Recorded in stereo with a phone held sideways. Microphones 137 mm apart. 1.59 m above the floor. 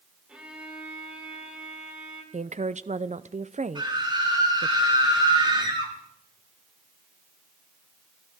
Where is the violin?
10° right (ahead or behind), 3 m.